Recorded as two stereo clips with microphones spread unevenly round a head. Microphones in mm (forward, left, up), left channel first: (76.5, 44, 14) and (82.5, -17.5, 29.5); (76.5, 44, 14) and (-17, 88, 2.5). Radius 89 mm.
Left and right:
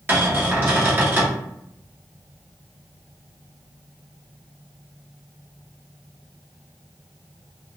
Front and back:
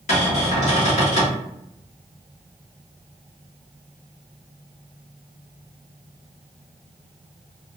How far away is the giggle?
I don't hear a giggle.